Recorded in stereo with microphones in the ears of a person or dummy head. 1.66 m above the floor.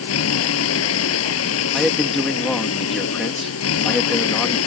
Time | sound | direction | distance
0.0 | a vehicle | 90° left | ?
1.7 | a man speaking | 5° left (ahead or behind) | ?